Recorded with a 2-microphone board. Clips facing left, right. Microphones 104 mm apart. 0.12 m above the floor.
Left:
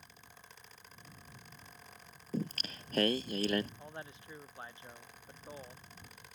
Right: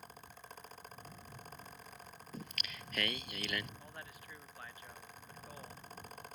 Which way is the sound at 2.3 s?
40° left (ahead or behind).